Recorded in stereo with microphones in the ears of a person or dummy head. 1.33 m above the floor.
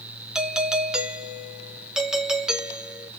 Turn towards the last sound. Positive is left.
turn(degrees=0)  # may be behind; listen again after turning